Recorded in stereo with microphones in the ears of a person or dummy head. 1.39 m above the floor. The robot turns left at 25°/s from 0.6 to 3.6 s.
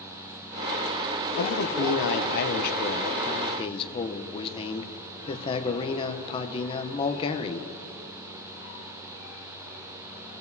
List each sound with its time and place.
1.4 s a man speaking: 85° left, 0.7 m; by 7.7 s 30° left, 0.7 m